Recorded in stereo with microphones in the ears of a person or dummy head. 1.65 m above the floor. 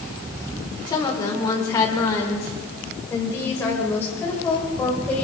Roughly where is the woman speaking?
Left.